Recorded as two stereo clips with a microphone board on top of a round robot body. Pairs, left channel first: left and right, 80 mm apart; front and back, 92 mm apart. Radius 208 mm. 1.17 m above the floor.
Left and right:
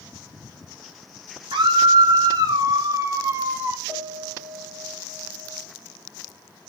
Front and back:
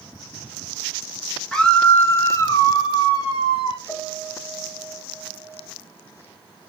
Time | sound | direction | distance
1.5 | a scream | 80° right | 2.5 m
3.9 | a piano | 55° right | 3.5 m